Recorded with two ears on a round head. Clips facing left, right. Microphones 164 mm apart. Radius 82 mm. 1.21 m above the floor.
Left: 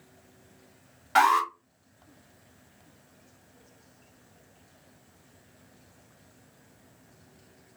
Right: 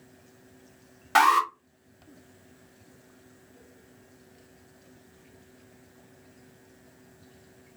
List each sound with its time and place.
1.1 s an alarm: 55° right (ahead or behind), 1.9 m